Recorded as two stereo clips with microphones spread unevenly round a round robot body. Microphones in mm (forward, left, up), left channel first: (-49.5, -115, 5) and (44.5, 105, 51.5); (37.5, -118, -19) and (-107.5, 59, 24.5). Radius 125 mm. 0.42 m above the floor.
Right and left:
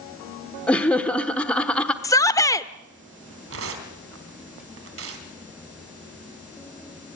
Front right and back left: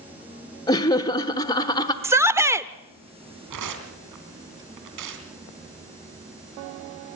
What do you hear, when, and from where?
0.7 s laughter: 55° right, 0.8 m
2.0 s a shout: 140° right, 0.8 m
3.5 s tearing paper: 105° left, 3.5 m